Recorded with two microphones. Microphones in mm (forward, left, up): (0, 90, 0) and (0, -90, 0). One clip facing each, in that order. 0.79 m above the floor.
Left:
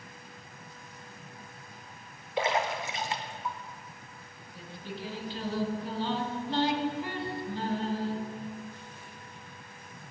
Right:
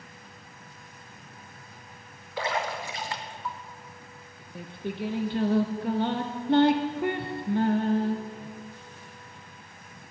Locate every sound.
2.4 s a splash: 20° left (ahead or behind), 0.7 m
4.5 s singing: 60° right (ahead or behind), 0.5 m